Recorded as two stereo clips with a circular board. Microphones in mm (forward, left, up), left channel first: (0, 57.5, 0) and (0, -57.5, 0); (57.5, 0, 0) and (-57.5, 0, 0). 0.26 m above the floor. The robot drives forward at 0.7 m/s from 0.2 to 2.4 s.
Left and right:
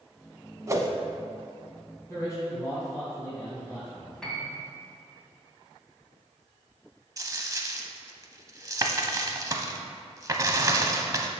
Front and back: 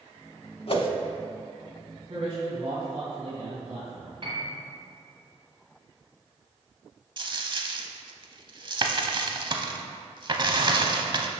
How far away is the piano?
About 1.4 m.